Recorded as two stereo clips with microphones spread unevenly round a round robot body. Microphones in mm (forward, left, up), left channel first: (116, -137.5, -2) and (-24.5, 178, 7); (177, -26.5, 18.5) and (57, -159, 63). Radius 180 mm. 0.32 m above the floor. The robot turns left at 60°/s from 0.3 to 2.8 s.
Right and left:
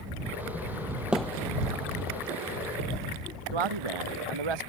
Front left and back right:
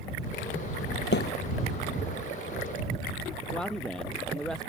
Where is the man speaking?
135° left.